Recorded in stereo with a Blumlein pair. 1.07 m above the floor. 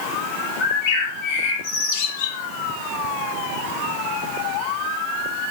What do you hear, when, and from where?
0.6 s a bird: 45° left, 8.5 m